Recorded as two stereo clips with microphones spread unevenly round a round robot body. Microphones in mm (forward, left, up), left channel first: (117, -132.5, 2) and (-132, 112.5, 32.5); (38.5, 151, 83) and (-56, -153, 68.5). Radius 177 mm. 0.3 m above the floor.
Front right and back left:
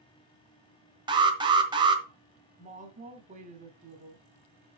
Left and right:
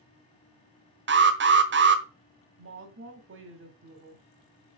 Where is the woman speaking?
155° right, 2 m.